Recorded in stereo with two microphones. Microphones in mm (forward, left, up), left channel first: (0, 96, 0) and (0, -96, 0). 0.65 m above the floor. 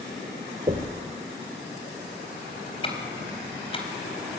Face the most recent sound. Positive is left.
turn(degrees=30)  # may be behind; listen again after turning